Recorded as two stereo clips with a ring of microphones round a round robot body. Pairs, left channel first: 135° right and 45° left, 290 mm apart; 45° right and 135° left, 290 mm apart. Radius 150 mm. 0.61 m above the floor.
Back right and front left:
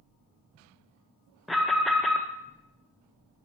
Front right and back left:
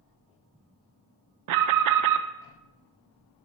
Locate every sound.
1.5 s an alarm: 135° left, 0.5 m